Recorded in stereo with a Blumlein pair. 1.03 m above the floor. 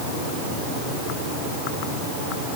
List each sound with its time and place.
Only background noise.